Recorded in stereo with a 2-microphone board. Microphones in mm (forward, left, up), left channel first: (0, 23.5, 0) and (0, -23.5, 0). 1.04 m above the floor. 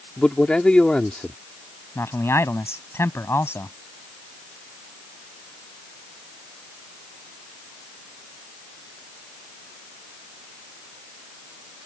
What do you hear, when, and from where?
0.2 s a man speaking: 20° left (ahead or behind)
1.9 s a man speaking: 65° left (ahead or behind)